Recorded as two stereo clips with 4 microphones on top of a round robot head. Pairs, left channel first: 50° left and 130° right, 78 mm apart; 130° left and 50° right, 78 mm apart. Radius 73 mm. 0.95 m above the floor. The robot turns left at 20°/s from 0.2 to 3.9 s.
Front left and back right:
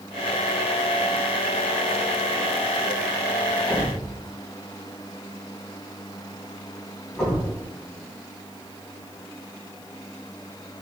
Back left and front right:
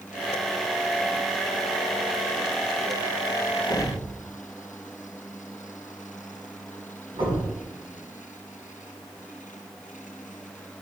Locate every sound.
3.7 s a thud: 20° right, 2 m; by 7.6 s 25° right, 2 m